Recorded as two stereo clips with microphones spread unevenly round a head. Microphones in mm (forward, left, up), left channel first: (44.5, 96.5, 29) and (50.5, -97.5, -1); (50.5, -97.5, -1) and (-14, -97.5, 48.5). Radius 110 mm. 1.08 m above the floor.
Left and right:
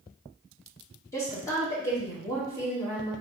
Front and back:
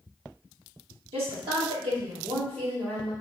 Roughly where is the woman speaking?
Behind.